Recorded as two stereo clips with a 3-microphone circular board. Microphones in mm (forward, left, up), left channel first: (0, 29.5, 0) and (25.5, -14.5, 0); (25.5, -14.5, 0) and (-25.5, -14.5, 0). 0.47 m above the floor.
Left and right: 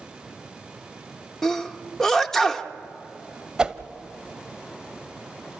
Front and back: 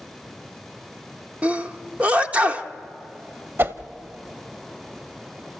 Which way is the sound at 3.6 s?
135° right.